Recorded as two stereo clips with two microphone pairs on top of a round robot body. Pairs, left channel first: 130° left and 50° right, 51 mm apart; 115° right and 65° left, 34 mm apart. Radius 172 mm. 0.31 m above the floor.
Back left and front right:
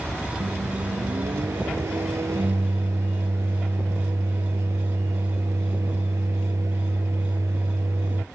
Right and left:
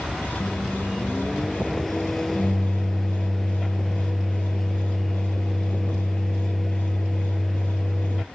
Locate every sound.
0.4 s a microwave: 35° right